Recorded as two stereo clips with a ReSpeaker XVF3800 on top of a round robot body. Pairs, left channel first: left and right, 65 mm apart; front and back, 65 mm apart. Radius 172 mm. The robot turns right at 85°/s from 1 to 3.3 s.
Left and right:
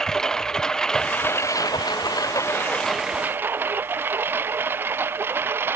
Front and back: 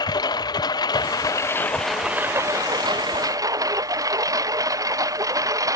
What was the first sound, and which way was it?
A lawn mower, 10° left.